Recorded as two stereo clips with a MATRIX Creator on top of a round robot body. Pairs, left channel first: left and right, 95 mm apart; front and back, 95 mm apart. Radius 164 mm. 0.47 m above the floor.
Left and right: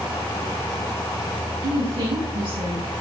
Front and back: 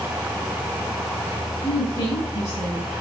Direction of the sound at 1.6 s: 65° right.